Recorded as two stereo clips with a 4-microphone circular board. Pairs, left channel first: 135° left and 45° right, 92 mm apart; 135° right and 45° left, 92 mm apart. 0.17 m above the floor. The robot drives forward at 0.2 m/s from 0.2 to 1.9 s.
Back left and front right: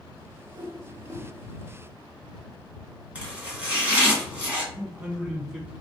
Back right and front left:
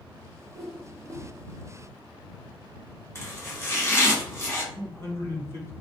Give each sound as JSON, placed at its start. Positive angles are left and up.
{"t": 0.5, "sound": "a whoosh", "azimuth_deg": -45, "distance_m": 1.2}
{"t": 3.1, "sound": "chopping", "azimuth_deg": -110, "distance_m": 1.3}
{"t": 4.7, "sound": "a man speaking", "azimuth_deg": -120, "distance_m": 1.1}